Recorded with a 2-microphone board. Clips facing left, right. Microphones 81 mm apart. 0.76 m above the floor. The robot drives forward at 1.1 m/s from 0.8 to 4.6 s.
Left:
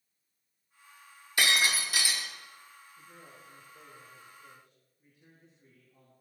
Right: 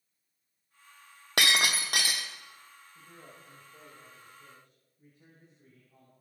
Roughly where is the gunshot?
I don't hear a gunshot.